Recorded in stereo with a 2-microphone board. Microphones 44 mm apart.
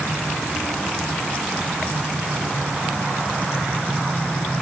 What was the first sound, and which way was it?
Only background noise.